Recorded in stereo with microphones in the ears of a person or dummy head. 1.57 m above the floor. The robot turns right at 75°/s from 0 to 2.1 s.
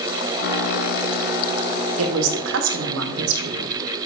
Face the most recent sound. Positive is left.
turn(degrees=-70)  # may be behind; listen again after turning